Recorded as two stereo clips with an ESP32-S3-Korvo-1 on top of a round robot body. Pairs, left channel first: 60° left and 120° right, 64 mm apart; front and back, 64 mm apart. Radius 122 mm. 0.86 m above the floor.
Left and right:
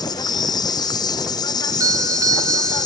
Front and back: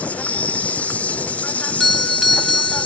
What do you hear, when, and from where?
0.0 s an insect: 70° left
1.6 s a doorbell: 85° right